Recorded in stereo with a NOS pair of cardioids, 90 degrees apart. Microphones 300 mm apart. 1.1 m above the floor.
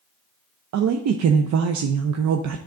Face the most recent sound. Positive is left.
turn(degrees=-70)